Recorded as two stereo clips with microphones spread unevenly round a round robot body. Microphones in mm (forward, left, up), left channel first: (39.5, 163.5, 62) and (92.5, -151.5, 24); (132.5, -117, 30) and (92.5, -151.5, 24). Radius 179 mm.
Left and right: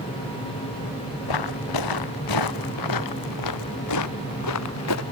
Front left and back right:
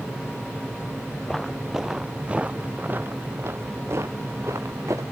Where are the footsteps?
130° left; by 5.0 s 150° left.